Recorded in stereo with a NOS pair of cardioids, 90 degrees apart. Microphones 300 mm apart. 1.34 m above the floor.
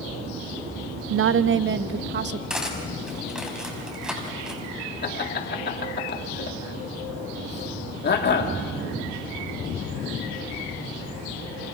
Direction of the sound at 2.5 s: Straight ahead.